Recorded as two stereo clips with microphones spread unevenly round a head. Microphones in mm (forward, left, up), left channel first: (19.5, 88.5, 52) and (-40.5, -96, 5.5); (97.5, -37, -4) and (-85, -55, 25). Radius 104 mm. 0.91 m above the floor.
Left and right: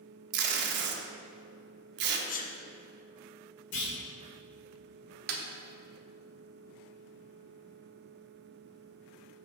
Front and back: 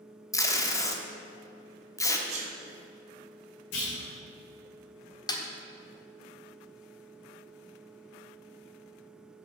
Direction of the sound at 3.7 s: 35° left.